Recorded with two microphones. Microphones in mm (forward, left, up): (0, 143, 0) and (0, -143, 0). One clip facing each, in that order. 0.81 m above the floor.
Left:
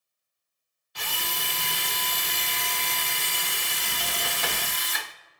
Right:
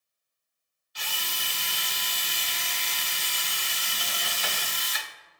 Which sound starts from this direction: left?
A drill, at 0.9 s.